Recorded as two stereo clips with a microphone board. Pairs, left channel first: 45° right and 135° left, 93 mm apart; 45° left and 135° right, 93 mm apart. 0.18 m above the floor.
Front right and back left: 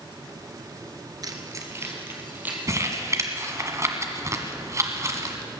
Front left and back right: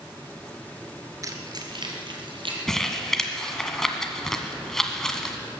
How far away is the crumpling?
About 1.6 m.